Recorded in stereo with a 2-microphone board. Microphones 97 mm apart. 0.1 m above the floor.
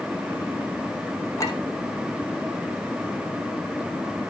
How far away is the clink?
About 3 m.